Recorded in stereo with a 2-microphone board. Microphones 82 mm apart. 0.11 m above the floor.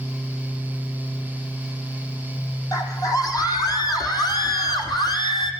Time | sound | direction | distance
2.7 | a scream | 45° left (ahead or behind) | 6 m